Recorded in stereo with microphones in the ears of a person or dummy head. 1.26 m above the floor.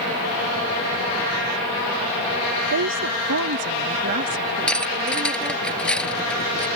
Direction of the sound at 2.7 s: 75° right (ahead or behind).